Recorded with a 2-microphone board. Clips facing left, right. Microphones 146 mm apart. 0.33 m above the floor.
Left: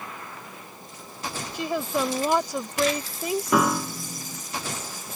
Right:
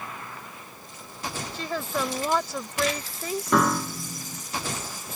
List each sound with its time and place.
1.5 s a woman speaking: 15° left (ahead or behind)
3.5 s a piano: 5° left (ahead or behind)